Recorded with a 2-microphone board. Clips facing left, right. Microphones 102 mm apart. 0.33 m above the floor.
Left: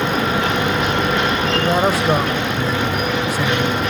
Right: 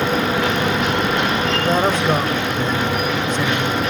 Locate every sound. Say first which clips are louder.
1.6 s a man speaking: left 1 dB; 10° left (ahead or behind), 1.3 m